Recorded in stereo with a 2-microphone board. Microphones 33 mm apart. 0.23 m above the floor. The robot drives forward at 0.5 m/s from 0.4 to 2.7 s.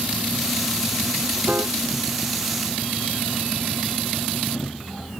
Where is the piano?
50° right (ahead or behind).